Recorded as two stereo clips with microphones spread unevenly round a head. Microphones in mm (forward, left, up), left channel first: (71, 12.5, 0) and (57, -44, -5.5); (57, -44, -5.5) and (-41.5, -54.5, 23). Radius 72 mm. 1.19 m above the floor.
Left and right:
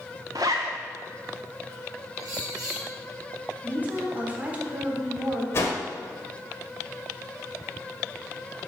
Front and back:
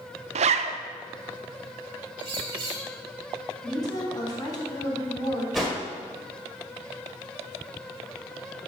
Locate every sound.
0.3 s a zipper: 165° right, 0.5 m
2.2 s a bird: 135° right, 3 m
3.6 s a woman speaking: 40° right, 3.5 m
5.5 s a whoosh: 110° left, 1.3 m